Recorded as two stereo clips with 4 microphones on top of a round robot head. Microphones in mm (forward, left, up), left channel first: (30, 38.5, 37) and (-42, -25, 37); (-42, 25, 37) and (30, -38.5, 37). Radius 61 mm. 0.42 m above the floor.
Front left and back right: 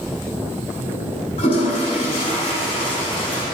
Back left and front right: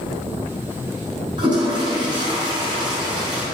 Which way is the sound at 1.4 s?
5° left.